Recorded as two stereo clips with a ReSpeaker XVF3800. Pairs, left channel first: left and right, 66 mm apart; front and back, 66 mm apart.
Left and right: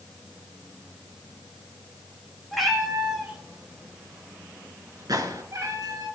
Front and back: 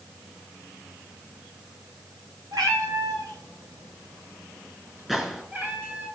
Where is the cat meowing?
Straight behind, 3 m; by 6.1 s 115° right, 2.5 m.